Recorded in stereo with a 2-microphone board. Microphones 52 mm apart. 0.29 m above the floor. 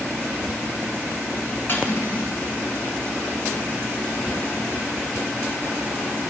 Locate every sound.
1.7 s cutlery clinking: 50° left (ahead or behind), 1.5 m